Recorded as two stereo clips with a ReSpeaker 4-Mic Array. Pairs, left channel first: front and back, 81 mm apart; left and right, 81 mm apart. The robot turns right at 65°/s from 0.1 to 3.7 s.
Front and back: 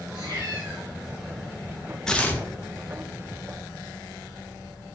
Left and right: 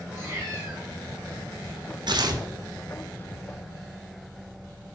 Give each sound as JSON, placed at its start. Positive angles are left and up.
{"t": 0.1, "sound": "a cat meowing", "azimuth_deg": -160, "distance_m": 2.0}
{"t": 2.1, "sound": "tearing paper", "azimuth_deg": -80, "distance_m": 0.5}